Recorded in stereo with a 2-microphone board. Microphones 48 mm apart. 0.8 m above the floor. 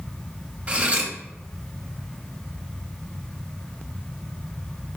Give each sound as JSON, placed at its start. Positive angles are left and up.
{"t": 0.7, "sound": "cutlery clinking", "side_deg": -30, "distance_m": 0.7}